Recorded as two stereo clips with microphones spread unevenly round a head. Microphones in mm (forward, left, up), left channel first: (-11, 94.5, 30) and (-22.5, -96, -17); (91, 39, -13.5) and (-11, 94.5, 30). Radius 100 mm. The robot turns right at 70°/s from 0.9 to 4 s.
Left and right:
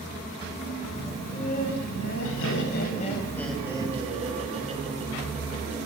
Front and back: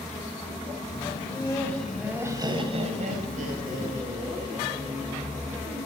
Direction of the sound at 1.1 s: 10° left.